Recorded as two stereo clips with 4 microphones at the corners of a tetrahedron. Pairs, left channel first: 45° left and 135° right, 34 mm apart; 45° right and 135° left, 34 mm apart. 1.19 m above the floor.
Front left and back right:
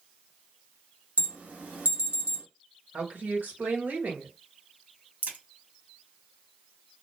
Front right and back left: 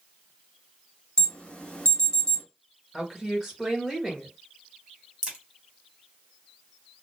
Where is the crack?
155° right, 1.5 m.